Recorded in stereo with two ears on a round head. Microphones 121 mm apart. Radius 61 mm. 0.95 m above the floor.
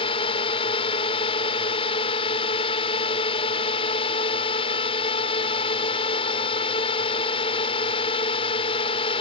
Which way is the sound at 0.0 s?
40° left (ahead or behind).